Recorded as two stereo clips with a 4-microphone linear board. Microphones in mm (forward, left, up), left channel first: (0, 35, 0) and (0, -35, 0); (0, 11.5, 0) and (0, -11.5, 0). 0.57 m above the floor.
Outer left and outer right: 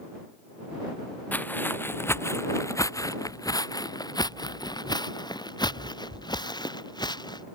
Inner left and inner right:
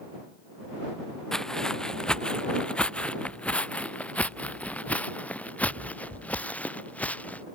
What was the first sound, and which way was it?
Footsteps, 25° left (ahead or behind).